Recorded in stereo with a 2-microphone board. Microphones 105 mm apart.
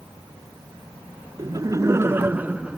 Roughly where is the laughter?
Right.